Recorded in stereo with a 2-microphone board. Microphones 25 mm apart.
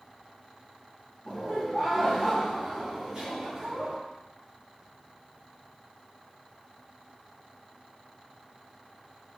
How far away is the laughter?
About 1.7 m.